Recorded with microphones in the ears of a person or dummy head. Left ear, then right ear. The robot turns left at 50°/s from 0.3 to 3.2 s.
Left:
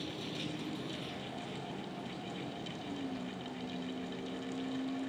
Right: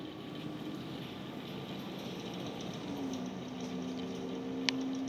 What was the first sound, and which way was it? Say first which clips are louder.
A vehicle: left 3 dB; 45° left.